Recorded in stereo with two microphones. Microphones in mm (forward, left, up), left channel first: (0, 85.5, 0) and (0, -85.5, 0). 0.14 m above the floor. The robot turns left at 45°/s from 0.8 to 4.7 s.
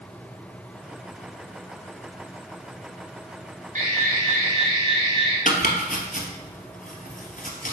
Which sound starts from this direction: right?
An alarm, at 3.8 s.